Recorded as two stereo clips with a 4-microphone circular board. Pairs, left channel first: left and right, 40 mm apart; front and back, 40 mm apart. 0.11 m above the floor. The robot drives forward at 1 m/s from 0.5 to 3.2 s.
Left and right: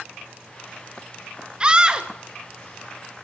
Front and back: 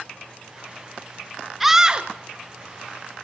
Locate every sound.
1.6 s a scream: 100° right, 1.1 m; by 2.1 s 145° right, 1.3 m